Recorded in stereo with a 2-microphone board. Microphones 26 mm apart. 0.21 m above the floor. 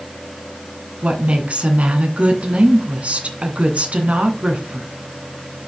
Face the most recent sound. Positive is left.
turn(degrees=-55)  # may be behind; listen again after turning